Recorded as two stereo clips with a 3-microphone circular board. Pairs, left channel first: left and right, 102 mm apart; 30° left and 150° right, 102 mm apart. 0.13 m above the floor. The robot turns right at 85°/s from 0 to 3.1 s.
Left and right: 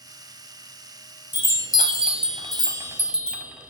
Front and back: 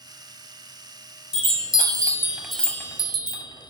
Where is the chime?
160° right, 0.7 m; by 3.7 s 10° right, 0.7 m.